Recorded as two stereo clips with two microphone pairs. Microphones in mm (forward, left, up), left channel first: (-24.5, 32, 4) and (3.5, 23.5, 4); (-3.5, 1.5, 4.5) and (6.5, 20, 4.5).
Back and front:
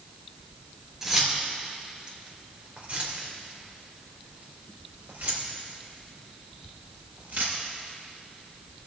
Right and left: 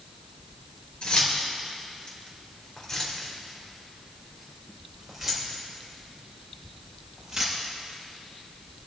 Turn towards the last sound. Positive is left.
turn(degrees=-5)